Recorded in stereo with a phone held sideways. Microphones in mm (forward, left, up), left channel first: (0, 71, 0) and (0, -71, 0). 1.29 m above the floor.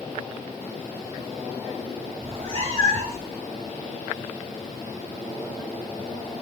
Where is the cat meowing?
45° right (ahead or behind), 3 m; by 3.3 s 40° right (ahead or behind), 4 m.